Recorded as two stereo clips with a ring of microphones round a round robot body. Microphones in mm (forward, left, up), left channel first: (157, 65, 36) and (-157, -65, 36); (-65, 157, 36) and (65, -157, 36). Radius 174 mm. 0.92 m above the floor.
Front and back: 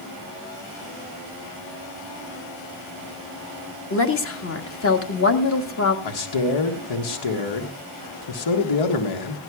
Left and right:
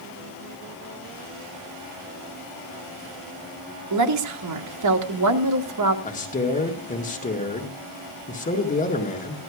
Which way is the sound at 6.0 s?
45° left.